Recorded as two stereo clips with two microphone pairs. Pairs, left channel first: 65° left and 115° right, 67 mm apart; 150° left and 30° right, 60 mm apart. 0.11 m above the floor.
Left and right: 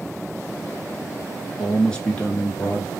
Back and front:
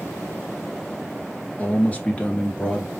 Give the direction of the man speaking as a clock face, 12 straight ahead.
7 o'clock.